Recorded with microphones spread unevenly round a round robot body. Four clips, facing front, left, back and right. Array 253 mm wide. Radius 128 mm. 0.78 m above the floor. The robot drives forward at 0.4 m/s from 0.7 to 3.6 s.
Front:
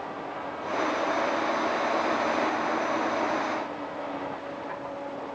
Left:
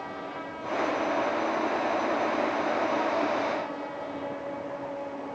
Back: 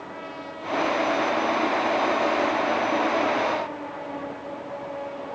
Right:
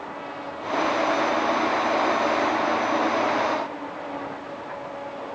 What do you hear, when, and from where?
Only background noise.